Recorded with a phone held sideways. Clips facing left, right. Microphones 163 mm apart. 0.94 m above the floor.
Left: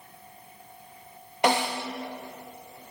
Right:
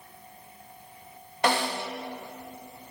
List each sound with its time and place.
1.4 s a snare drum: 20° left (ahead or behind), 1.3 m